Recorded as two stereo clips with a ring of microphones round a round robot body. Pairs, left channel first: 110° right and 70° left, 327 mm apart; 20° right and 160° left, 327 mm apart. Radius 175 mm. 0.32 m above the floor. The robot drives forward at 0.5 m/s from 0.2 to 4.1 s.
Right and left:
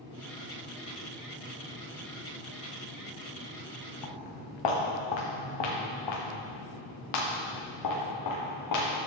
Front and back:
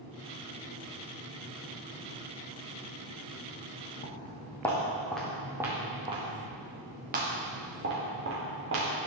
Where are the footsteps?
95° right, 2.0 m; by 8.9 s 150° right, 3.5 m.